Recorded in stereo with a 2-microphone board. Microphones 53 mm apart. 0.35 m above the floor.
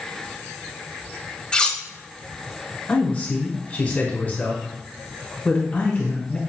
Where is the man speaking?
30° left (ahead or behind), 1.6 m.